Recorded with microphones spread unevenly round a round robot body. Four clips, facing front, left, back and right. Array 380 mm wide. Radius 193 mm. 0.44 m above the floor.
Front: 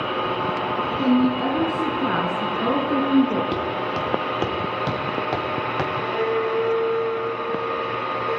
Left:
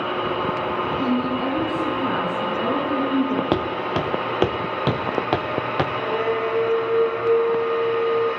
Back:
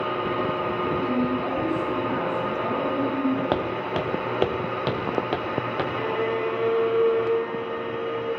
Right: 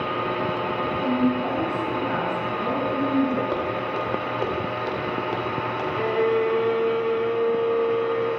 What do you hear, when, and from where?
1.0 s a woman speaking: 30° left, 5.5 m; by 3.4 s 15° left, 6.5 m
3.5 s footsteps: 105° left, 2.5 m; by 5.8 s 70° left, 3 m
5.9 s a violin: 120° right, 2.5 m